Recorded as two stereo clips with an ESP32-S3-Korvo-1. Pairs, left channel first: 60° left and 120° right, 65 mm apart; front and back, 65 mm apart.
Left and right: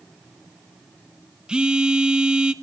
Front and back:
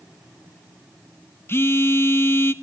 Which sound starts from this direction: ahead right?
A phone buzzing, at 1.5 s.